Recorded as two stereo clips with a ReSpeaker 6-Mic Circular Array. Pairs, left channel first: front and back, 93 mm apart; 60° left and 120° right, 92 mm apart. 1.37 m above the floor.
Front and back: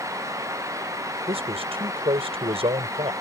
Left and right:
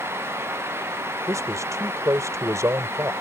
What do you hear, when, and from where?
1.3 s a man speaking: straight behind